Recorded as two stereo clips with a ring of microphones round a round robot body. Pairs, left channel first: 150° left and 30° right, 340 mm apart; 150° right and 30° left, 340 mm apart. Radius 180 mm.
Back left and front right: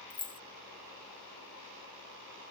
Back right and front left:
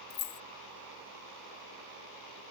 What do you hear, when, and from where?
0.1 s keys jangling: 140° right